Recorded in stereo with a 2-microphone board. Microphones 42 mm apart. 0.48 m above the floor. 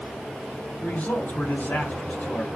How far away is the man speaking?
About 1.7 m.